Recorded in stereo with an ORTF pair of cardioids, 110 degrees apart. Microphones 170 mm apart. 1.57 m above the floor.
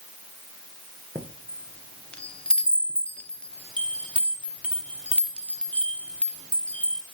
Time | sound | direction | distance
1.1 | a chime | 5° left | 0.9 m